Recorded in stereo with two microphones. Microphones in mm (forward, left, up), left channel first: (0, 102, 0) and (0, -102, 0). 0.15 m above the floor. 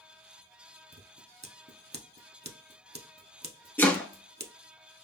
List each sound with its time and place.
0.9 s scissors: 55° right (ahead or behind), 0.5 m
3.8 s chopping: 10° left (ahead or behind), 0.8 m